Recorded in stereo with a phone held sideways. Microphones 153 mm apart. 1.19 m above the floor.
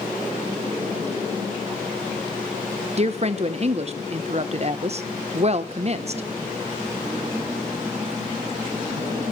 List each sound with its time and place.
3.0 s a woman speaking: 45° right (ahead or behind), 0.9 m